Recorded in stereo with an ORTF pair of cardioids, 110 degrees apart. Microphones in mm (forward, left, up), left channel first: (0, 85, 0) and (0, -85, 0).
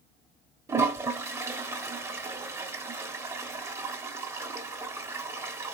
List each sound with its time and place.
0.7 s a toilet flushing: 15° right, 1.0 m